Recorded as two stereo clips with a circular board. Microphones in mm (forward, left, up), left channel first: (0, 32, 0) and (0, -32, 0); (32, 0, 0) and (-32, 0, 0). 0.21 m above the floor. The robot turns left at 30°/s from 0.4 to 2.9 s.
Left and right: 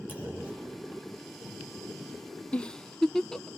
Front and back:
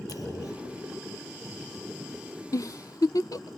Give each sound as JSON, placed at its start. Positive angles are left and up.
{"t": 0.1, "sound": "a clunk", "azimuth_deg": 30, "distance_m": 6.5}
{"t": 2.5, "sound": "a giggle", "azimuth_deg": 20, "distance_m": 0.5}